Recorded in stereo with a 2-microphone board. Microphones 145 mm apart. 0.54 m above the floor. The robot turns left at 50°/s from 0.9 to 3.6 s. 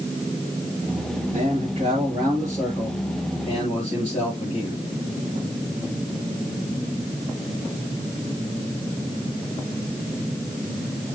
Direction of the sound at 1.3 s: 110° right.